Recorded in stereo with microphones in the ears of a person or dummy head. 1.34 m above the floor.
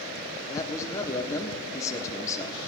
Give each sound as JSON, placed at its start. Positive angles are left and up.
{"t": 0.5, "sound": "a man speaking", "side_deg": 15, "distance_m": 1.0}